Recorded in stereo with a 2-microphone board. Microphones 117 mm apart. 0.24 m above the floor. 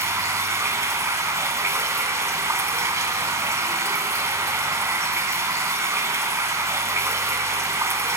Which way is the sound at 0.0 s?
25° right (ahead or behind).